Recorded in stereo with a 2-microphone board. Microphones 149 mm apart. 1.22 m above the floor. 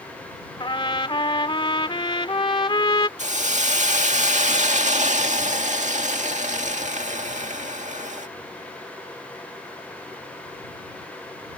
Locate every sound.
0.6 s a trumpet: 35° left (ahead or behind)
3.2 s a hiss: 55° right (ahead or behind)